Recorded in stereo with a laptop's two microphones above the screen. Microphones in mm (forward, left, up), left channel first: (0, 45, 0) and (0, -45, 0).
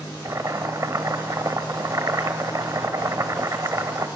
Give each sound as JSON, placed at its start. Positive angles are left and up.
{"t": 0.2, "sound": "boiling", "side_deg": -40, "distance_m": 1.0}